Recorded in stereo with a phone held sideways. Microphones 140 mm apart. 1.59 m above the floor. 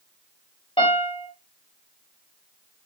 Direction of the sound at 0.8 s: 45° left (ahead or behind).